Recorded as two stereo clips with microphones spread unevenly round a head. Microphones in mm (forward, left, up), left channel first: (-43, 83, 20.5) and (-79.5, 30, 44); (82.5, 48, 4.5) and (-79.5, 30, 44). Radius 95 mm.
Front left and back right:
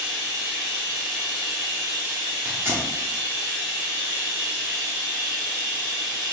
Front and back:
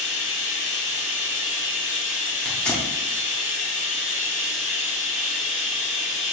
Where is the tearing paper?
90° right, 0.7 m.